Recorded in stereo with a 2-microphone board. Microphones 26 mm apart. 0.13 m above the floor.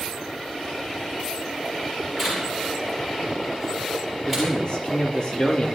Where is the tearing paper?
15° left (ahead or behind), 9.5 m.